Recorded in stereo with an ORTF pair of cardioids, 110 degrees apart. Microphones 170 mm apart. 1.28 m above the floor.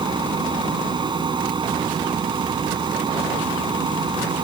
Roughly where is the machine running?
Ahead right.